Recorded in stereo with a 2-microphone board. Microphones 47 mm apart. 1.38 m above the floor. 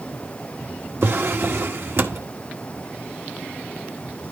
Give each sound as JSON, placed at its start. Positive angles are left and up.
{"t": 1.0, "sound": "a drawer", "side_deg": -60, "distance_m": 1.5}